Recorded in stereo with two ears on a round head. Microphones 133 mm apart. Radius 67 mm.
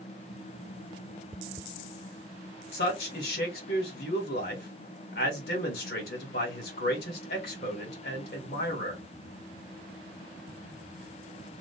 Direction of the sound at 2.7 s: 70° left (ahead or behind).